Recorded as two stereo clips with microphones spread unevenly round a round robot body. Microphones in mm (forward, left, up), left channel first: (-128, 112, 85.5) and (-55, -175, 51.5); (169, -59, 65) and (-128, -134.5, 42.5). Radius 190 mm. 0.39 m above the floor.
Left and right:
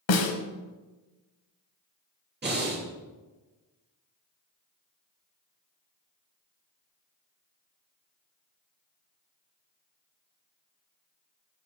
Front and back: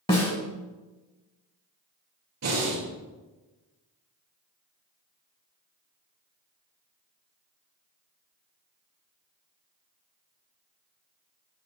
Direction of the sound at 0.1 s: 90° left.